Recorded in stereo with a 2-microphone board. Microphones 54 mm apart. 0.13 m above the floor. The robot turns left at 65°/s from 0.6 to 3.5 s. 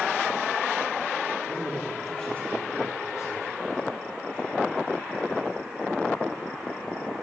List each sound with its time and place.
1.5 s a man speaking: 150° right, 3 m; by 3.8 s 80° left, 3 m